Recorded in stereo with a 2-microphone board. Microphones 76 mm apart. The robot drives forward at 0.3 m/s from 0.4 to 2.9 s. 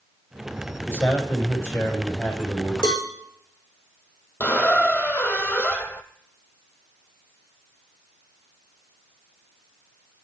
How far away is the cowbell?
About 3.5 m.